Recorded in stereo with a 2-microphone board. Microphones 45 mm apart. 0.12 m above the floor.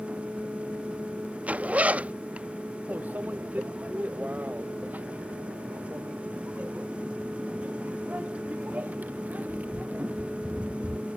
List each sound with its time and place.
1.5 s a zipper: 35° right (ahead or behind)
2.9 s a microwave: 40° right (ahead or behind)